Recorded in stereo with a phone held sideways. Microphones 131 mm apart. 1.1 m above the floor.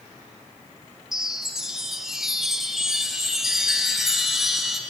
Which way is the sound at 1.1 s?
5° right (ahead or behind).